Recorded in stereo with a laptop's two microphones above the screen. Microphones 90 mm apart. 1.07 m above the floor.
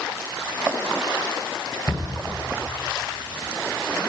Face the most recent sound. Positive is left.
turn(degrees=50)  # may be behind; listen again after turning